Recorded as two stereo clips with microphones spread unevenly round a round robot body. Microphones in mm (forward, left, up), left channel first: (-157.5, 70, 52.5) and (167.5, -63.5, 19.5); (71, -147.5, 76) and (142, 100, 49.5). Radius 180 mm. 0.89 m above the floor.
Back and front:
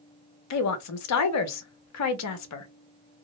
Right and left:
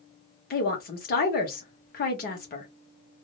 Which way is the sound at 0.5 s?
160° right.